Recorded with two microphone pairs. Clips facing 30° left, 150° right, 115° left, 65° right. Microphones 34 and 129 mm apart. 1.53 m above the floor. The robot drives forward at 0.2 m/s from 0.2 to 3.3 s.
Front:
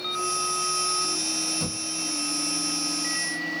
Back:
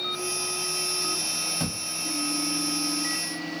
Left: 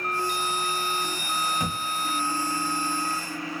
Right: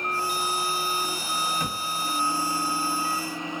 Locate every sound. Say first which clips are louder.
1.6 s a thud: even, left 1 dB; 170° right, 1.4 m; by 3.6 s 175° right, 1.6 m